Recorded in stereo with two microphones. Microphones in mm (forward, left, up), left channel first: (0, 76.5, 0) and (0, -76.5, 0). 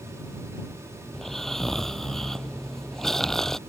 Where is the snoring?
5° left (ahead or behind).